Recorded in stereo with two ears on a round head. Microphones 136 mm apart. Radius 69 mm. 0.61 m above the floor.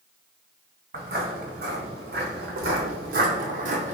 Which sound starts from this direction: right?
Footsteps, at 0.9 s.